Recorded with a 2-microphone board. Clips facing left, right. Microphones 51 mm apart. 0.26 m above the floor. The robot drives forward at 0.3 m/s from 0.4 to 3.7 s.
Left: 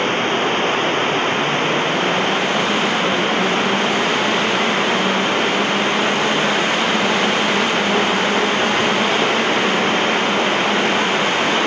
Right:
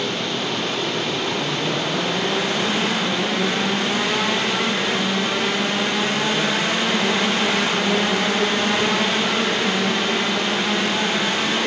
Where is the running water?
40° left (ahead or behind).